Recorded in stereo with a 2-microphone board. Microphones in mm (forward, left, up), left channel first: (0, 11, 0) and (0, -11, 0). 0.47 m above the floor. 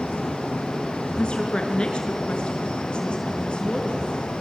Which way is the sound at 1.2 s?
45° left (ahead or behind).